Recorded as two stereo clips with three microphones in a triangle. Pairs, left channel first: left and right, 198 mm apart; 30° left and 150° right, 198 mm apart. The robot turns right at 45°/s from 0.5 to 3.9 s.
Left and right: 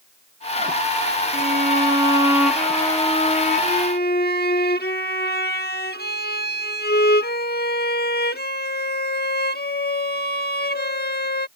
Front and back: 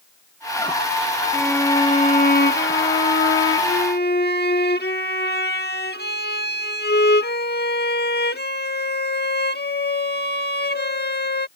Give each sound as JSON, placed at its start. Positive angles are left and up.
{"t": 1.3, "sound": "a violin", "azimuth_deg": -55}